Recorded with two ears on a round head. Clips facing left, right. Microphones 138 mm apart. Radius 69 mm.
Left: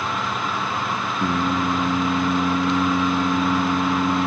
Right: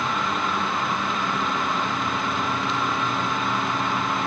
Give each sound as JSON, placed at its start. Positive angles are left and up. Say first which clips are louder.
{"t": 1.2, "sound": "singing", "louder": "left 4 dB", "side_deg": 80}